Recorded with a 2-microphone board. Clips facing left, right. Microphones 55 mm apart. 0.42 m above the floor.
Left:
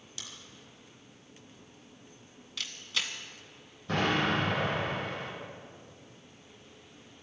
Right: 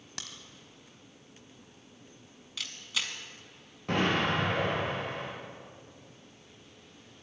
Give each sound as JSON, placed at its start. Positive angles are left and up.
{"t": 0.2, "sound": "a crack", "side_deg": -70, "distance_m": 1.7}
{"t": 2.6, "sound": "a camera shutter", "side_deg": -5, "distance_m": 1.7}
{"t": 3.9, "sound": "an explosion", "side_deg": -70, "distance_m": 7.0}